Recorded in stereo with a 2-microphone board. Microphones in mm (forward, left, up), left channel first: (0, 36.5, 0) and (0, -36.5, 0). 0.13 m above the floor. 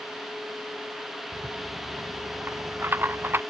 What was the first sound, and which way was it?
A rattle, 30° right (ahead or behind).